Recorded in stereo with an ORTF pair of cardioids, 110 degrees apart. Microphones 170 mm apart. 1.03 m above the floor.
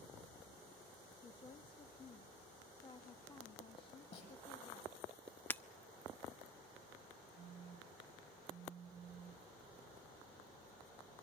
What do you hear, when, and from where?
1.2 s a woman speaking: 30° left, 1.3 m
4.1 s a snare drum: 40° left, 8 m
5.5 s breaking glass: 10° left, 0.7 m
7.4 s a phone buzzing: 40° right, 1.6 m